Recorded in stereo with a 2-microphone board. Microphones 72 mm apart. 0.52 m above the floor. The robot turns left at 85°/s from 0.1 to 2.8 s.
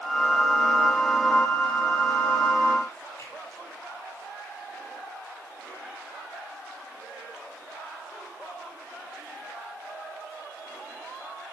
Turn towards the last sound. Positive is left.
turn(degrees=55)  # may be behind; listen again after turning